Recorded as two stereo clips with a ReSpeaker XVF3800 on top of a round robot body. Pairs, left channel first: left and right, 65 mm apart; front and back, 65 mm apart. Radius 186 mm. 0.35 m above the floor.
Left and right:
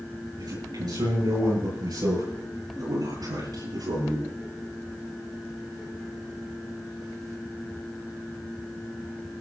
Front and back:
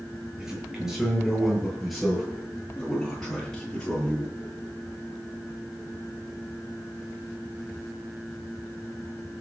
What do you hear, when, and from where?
0.4 s a man speaking: 100° right, 8 m; by 4.3 s 75° right, 11 m